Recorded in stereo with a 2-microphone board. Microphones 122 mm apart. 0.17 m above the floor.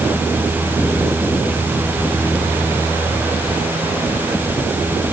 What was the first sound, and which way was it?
Only background noise.